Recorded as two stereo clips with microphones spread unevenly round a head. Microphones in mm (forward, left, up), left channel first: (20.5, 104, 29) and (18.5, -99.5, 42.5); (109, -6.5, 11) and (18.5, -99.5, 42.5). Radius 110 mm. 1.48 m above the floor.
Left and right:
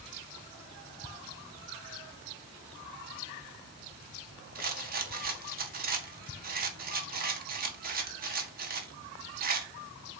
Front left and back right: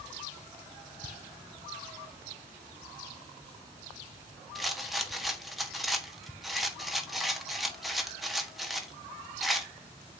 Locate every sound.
4.5 s a rattle: 45° right, 1.4 m